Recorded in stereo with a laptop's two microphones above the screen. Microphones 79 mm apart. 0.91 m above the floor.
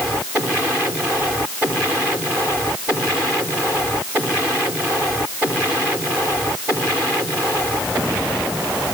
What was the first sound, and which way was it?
Only background noise.